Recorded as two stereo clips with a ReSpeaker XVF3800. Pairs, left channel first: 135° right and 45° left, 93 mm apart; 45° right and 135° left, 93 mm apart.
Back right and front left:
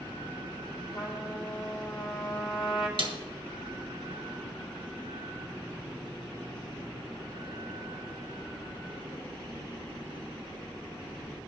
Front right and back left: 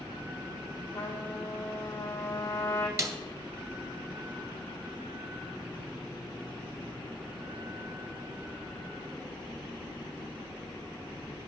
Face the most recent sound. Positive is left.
turn(degrees=80)